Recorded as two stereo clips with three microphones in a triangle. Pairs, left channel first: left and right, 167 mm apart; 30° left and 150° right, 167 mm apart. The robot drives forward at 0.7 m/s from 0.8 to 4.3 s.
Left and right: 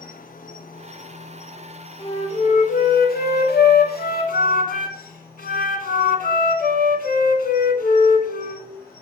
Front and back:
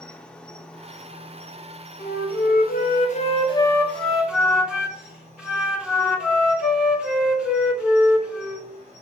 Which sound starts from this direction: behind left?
An insect, at 0.0 s.